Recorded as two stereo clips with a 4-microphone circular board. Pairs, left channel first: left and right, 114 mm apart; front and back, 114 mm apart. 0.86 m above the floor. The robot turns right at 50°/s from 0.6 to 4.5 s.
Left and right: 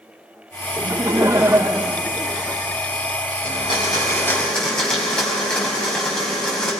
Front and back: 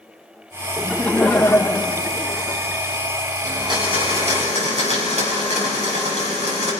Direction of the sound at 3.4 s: 120° left.